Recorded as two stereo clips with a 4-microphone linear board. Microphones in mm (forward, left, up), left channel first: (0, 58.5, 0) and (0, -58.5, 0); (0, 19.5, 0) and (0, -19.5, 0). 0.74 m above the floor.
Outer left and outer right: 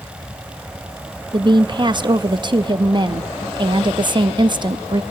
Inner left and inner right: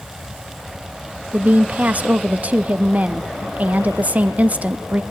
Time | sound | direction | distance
1.3 | a woman speaking | 40° right (ahead or behind) | 0.6 m